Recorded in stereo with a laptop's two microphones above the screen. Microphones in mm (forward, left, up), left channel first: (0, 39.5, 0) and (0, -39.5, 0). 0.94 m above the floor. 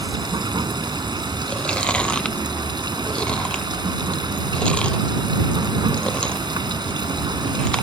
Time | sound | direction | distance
0.0 | running water | 80° right | ?
1.5 | chewing | 15° left (ahead or behind) | ?